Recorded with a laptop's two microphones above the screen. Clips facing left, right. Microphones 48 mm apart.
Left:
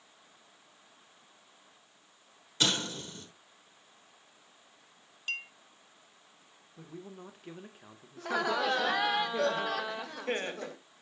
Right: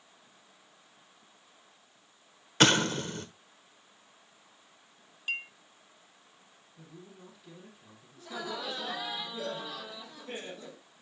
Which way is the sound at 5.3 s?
10° right (ahead or behind).